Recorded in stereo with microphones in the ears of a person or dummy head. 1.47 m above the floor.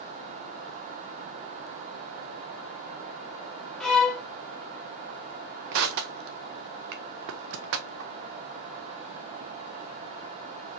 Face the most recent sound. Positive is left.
turn(degrees=-70)  # may be behind; listen again after turning